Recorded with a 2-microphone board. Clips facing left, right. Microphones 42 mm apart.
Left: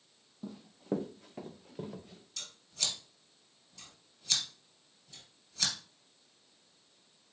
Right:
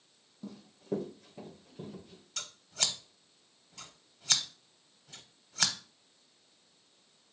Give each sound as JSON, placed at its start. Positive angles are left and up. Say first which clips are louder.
{"t": 0.4, "sound": "running footsteps", "louder": "left 2 dB", "side_deg": 15, "distance_m": 0.8}
{"t": 2.4, "sound": "scissors", "louder": "right 3 dB", "side_deg": -65, "distance_m": 0.6}